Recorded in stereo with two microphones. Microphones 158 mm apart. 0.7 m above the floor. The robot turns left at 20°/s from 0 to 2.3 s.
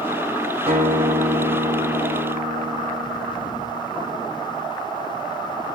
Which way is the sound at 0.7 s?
135° right.